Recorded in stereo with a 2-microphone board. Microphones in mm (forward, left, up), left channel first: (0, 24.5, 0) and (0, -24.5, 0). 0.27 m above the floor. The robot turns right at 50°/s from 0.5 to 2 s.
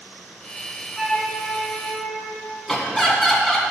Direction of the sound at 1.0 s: 170° right.